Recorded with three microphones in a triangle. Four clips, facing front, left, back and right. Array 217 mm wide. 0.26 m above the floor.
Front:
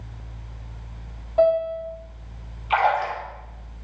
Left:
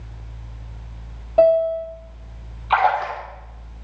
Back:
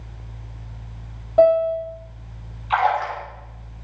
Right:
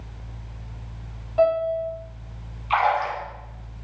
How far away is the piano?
About 1.2 m.